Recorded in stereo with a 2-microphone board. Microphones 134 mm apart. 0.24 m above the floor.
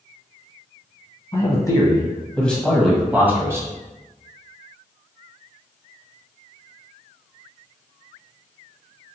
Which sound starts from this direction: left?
A man speaking, at 1.3 s.